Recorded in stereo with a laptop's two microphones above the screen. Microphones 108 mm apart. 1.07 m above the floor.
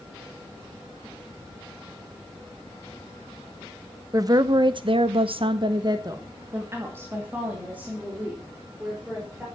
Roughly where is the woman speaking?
Right.